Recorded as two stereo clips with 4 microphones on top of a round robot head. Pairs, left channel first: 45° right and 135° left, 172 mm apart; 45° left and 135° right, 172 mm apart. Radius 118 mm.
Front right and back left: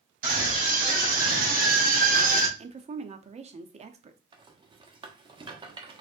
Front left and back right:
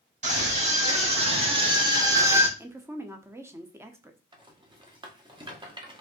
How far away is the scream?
About 3.5 m.